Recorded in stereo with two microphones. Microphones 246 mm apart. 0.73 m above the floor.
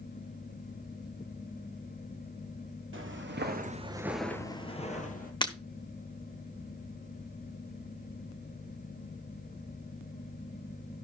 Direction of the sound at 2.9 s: 55° right (ahead or behind).